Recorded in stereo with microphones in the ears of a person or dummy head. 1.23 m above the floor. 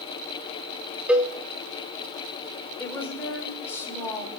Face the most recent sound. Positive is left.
turn(degrees=10)  # may be behind; listen again after turning